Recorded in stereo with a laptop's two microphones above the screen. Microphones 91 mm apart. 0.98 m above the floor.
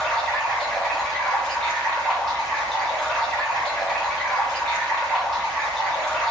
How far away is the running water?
About 1.3 m.